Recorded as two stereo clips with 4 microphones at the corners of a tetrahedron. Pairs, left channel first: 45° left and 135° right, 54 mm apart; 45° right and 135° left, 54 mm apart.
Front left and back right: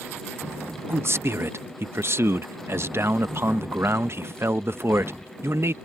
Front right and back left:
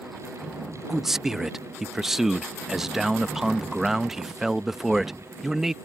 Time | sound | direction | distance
0.9 | a man speaking | 145° right | ?